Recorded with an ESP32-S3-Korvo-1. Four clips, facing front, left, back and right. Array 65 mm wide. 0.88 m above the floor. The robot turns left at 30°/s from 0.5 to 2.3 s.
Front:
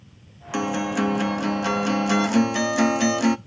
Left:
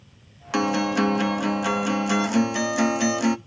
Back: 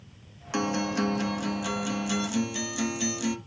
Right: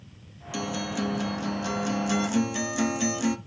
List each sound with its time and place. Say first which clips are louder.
0.5 s a guitar: left 9 dB, front 4 dB; 80° left, 0.6 m; by 3.4 s 30° left, 0.6 m